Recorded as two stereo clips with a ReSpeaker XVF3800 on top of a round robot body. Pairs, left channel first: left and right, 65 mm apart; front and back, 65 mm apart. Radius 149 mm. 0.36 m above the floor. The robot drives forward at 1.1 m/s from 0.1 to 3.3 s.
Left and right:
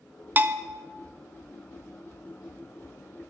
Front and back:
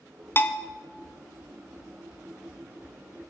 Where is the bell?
40° right, 1.1 m; by 0.7 s 70° right, 0.9 m.